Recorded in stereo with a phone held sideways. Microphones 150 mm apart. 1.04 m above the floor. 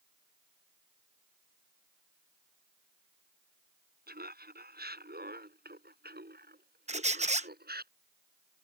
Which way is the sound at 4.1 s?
80° right.